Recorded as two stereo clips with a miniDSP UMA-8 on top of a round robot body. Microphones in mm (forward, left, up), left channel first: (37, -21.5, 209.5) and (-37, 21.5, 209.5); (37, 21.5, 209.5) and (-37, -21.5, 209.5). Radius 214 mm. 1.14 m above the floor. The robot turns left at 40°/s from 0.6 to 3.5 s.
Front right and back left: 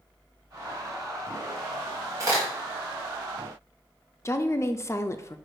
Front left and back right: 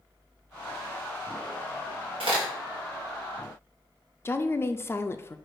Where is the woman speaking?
5° right, 0.5 m.